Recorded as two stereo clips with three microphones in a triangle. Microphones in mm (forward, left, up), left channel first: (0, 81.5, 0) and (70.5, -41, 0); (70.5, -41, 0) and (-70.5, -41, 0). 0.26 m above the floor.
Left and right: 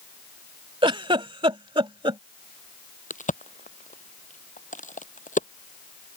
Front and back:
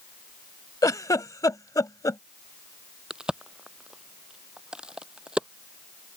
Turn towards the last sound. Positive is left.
turn(degrees=95)